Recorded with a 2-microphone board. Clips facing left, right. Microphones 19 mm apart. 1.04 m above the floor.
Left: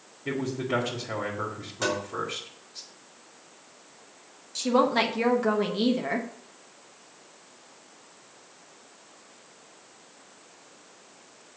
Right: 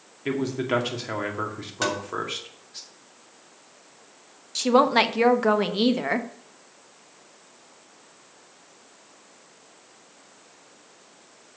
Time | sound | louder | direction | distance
0.2 | a man speaking | right 4 dB | 60° right (ahead or behind) | 2 m
1.8 | tapping | right 2 dB | 35° right (ahead or behind) | 2.5 m
4.5 | a woman speaking | right 4 dB | 30° right (ahead or behind) | 0.8 m